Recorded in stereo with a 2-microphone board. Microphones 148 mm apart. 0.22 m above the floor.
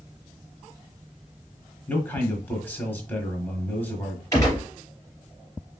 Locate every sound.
1.9 s a man speaking: 10° left (ahead or behind), 1.2 m
4.3 s a gunshot: 25° left (ahead or behind), 3 m